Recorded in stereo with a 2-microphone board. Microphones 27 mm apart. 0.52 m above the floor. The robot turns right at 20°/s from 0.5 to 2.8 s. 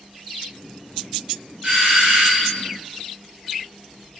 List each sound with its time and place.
1.6 s a doorbell: 30° right (ahead or behind), 1.3 m; by 2.6 s 35° right (ahead or behind), 1.3 m